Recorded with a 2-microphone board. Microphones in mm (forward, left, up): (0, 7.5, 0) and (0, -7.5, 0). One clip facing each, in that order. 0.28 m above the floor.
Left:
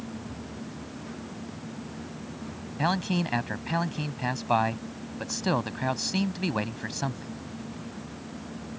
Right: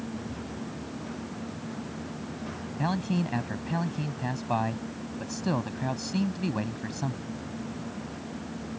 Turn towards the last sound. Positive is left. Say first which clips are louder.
# left 2 dB
turn(degrees=30)  # may be behind; listen again after turning